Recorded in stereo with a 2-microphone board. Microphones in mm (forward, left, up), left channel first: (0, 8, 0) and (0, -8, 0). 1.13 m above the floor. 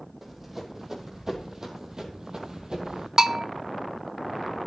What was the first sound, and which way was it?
Running footsteps, 15° right (ahead or behind).